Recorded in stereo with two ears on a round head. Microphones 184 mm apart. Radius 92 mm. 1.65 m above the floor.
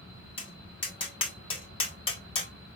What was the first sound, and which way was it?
Tapping, 25° left (ahead or behind).